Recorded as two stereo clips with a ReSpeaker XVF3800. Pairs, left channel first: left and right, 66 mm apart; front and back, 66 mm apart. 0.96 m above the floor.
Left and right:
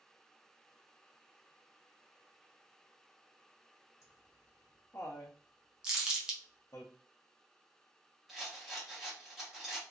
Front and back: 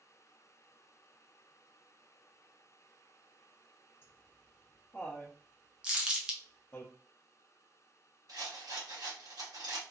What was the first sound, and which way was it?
Laughter, 50° left.